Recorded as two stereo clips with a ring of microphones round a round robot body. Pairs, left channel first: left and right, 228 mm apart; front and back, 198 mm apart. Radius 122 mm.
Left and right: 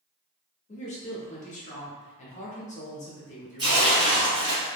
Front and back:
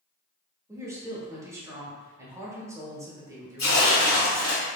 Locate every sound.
0.7 s a woman speaking: 115° left, 1.0 m
3.6 s tearing paper: 20° right, 1.1 m